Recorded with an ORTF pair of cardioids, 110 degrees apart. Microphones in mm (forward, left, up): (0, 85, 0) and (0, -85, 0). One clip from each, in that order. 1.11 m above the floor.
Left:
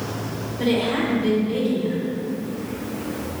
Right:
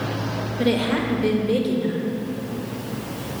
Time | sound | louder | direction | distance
0.6 | a woman speaking | left 1 dB | 65° right | 1.4 m